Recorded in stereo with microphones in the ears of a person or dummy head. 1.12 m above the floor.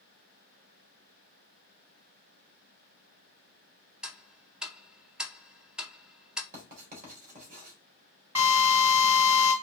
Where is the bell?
I don't hear a bell.